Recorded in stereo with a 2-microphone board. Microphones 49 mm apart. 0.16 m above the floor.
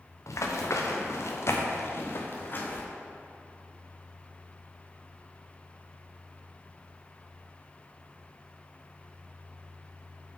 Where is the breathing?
No breathing in this recording.